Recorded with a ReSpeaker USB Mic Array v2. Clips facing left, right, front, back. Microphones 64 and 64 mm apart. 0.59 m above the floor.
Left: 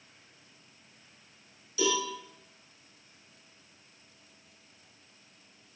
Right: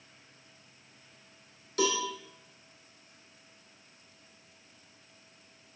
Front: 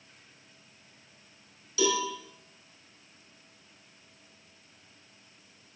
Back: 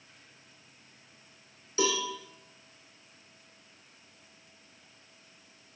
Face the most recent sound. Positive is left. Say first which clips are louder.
# even, front 2 dB
turn(degrees=-125)